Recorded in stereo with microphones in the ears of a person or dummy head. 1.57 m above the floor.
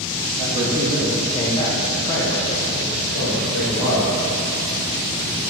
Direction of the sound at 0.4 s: 30° right (ahead or behind).